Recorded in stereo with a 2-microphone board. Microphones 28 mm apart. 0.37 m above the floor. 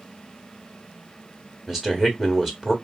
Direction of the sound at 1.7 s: 10° right (ahead or behind).